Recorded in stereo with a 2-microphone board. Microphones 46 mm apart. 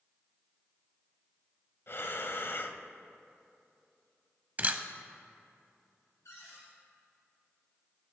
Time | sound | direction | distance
1.9 | breathing | 50° left (ahead or behind) | 0.5 m
4.6 | a camera shutter | 35° right (ahead or behind) | 0.6 m
6.2 | a cupboard door | 85° left | 3 m